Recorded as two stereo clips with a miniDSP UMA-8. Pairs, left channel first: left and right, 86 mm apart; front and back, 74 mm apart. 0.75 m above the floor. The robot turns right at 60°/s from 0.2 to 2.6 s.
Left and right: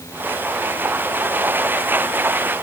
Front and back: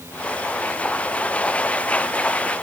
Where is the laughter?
No laughter in this recording.